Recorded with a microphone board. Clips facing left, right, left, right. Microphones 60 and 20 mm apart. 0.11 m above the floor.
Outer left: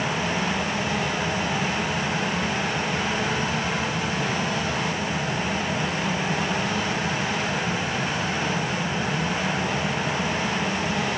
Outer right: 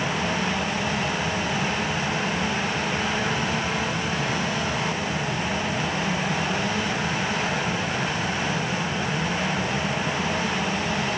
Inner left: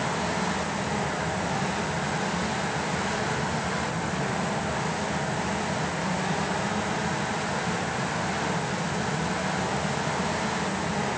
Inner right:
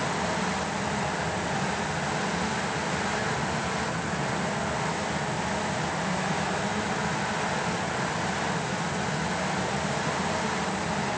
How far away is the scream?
No scream in this recording.